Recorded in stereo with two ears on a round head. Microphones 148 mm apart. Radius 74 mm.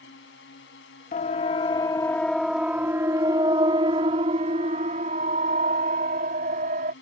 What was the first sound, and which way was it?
A drone, 75° left (ahead or behind).